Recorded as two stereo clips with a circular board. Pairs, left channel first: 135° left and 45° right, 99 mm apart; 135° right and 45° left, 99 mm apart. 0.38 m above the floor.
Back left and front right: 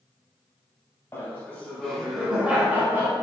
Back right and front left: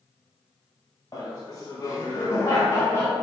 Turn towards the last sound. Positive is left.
turn(degrees=-85)